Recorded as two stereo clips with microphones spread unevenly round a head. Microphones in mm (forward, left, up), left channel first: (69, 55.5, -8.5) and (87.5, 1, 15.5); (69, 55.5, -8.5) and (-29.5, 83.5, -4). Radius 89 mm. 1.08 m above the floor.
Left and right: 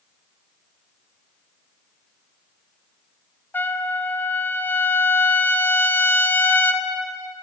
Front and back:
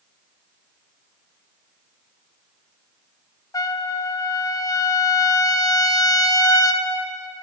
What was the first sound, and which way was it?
A trumpet, 35° left.